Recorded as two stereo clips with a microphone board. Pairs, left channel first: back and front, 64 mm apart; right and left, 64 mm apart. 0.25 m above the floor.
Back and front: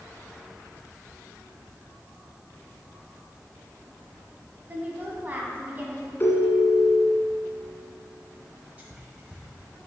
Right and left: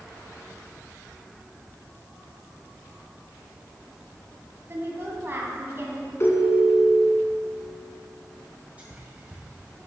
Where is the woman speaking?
50° left, 1.6 m.